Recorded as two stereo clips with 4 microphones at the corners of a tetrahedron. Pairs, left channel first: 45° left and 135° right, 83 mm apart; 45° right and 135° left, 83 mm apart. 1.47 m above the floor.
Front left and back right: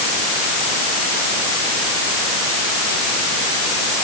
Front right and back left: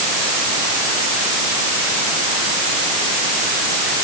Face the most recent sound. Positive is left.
No sound to turn to.